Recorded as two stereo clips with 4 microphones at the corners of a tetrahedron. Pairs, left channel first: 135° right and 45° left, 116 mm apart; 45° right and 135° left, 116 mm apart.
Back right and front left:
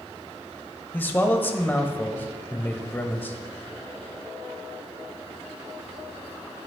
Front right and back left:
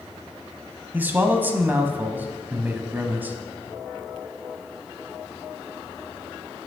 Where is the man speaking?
Straight behind, 0.9 m.